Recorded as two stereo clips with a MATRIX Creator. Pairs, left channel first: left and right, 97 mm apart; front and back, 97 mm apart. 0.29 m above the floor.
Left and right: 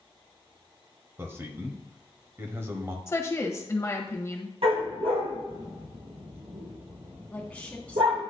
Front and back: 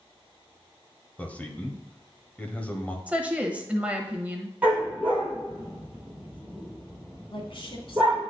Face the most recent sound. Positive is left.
turn(degrees=15)